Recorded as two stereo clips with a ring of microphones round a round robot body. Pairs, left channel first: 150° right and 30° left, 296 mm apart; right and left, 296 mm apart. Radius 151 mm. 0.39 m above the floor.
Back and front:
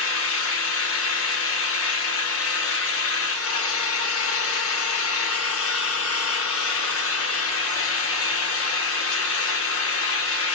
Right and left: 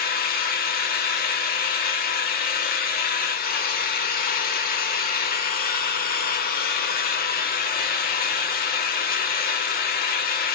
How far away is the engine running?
About 0.8 m.